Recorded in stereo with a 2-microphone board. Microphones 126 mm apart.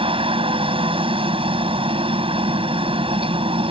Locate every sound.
0.0 s a helicopter: 45° right (ahead or behind)